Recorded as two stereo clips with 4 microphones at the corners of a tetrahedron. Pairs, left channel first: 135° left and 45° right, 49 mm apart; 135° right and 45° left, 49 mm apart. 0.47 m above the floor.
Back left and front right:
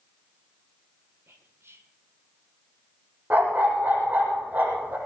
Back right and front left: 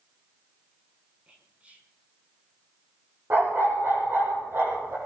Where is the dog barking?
5° left, 6.5 m.